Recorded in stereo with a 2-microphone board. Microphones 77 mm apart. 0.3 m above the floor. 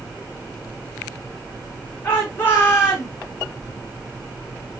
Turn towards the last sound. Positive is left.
turn(degrees=35)  # may be behind; listen again after turning